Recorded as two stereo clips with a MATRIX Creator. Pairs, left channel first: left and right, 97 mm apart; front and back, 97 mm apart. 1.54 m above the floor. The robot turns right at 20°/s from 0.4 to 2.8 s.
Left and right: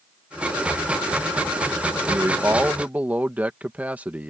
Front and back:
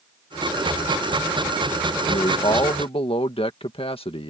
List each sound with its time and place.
2.1 s a man speaking: 30° right; by 4.3 s 15° right